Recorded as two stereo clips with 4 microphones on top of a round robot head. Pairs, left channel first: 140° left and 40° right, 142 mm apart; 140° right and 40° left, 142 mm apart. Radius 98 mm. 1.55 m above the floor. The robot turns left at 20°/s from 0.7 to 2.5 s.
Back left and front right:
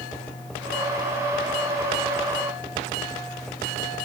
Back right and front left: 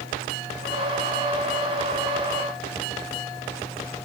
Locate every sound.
Only background noise.